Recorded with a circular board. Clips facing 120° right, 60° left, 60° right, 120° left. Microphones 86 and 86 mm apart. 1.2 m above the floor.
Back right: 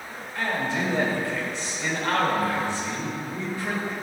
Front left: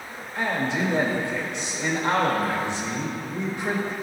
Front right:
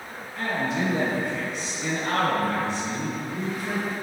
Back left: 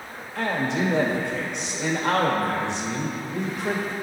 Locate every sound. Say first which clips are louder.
0.3 s a man speaking: front left 1 dB, back left 2 dB; 130° left, 1.4 m